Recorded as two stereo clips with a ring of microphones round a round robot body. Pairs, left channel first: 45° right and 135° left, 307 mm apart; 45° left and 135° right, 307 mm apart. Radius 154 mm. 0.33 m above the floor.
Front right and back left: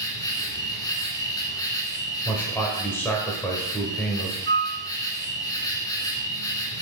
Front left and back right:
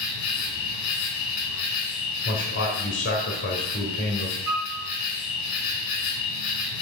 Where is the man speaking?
35° left, 1.4 m.